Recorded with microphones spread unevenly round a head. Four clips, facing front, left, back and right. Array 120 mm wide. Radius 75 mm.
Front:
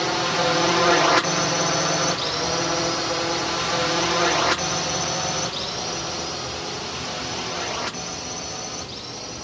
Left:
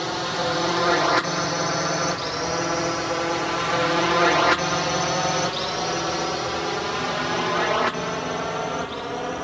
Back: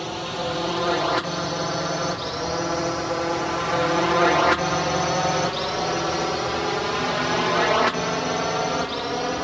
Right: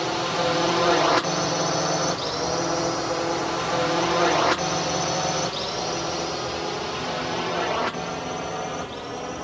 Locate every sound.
0.0 s a drone: 20° right; by 9.4 s 160° left